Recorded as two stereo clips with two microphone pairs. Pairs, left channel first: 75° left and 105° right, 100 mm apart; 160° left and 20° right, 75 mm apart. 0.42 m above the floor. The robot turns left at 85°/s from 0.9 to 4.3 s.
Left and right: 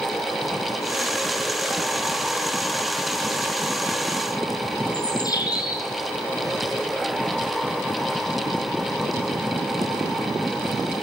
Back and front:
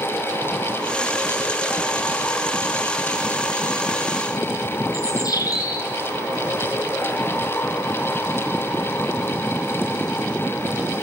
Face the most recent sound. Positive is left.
turn(degrees=125)